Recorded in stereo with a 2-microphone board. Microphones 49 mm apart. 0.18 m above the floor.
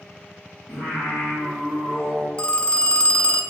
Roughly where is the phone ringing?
Left.